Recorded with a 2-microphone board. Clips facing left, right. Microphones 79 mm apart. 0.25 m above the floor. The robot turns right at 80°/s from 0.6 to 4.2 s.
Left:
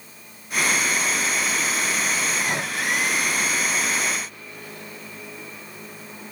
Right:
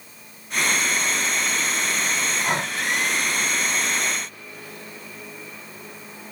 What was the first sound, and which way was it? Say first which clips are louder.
Breathing: right 2 dB; 30° right (ahead or behind).